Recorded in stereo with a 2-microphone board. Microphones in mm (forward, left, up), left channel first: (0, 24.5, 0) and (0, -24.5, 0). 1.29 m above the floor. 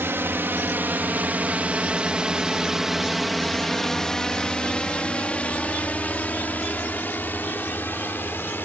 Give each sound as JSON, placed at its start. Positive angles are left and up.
{"t": 0.0, "sound": "a drone", "side_deg": -55}